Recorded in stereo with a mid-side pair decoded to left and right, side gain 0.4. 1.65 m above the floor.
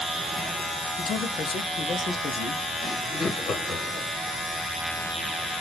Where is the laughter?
60° left, 1.8 m.